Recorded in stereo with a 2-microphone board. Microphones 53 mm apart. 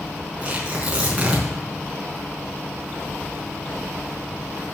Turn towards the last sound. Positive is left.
turn(degrees=-25)  # may be behind; listen again after turning